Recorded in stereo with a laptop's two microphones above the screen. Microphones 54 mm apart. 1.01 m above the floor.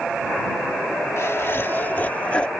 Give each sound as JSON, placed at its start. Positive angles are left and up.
{"t": 1.2, "sound": "laughter", "side_deg": 55}